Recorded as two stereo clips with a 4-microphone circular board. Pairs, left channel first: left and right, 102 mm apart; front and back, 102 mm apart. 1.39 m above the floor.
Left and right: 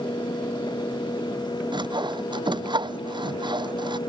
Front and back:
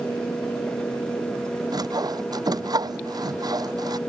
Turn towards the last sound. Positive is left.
turn(degrees=-130)